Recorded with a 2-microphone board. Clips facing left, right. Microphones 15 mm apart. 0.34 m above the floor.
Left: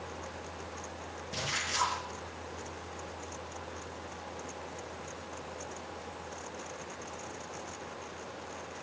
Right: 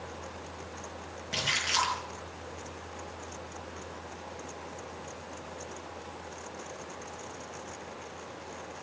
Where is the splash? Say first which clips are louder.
Right 5 dB; 65° right (ahead or behind), 9 m.